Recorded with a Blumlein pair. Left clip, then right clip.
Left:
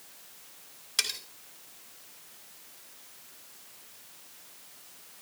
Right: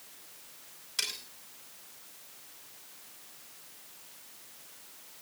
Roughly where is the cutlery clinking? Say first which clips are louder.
Left 4 dB; ahead.